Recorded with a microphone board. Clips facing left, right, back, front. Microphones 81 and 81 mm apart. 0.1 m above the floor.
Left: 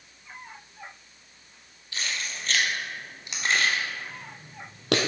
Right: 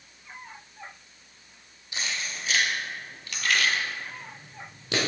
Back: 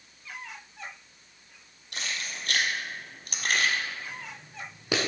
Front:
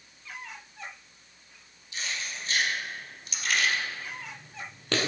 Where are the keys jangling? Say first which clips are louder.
Even, even; 160° right, 2 m; by 5.0 s 100° left, 2 m.